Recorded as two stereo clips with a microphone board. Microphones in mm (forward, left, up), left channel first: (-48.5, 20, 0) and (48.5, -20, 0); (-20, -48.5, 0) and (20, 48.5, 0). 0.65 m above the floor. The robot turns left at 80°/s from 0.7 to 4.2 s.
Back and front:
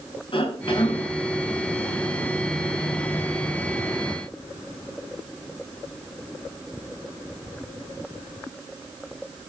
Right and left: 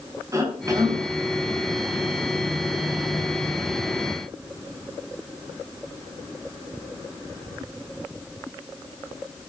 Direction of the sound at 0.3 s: 125° left.